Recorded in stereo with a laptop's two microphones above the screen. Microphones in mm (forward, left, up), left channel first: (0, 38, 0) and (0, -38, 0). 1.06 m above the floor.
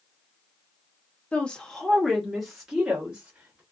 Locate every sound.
1.3 s a woman speaking: 15° left (ahead or behind), 0.6 m; by 3.6 s 10° right (ahead or behind), 1.5 m